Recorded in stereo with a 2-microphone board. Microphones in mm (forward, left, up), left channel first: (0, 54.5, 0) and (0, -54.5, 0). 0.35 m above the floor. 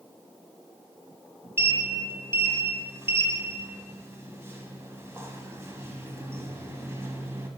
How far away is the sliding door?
About 1.1 m.